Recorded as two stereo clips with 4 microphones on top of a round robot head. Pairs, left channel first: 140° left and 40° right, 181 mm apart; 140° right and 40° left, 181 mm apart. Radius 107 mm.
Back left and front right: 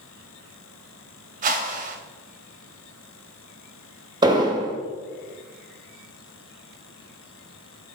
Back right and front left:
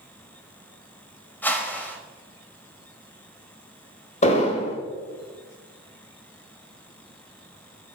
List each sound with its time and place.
1.4 s a whoosh: 60° right, 1.0 m
4.2 s an explosion: 100° right, 1.2 m